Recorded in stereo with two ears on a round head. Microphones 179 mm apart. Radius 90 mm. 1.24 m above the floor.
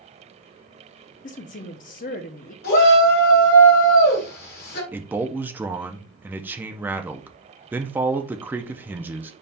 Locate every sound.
1.2 s a woman speaking: 40° left (ahead or behind), 0.7 m
2.6 s a shout: 50° left (ahead or behind), 2.5 m
4.9 s a man speaking: 10° right (ahead or behind), 0.5 m